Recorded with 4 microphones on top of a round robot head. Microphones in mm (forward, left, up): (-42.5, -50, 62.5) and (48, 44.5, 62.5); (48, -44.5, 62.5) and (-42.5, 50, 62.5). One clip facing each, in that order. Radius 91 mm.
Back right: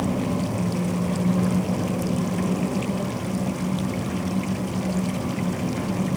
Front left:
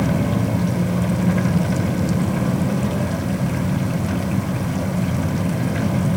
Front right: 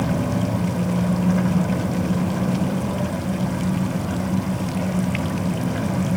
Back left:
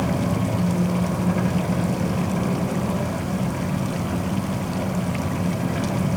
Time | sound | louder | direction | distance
0.0 | an engine running | front left 4 dB, front right 1 dB | 35° left | 4.5 m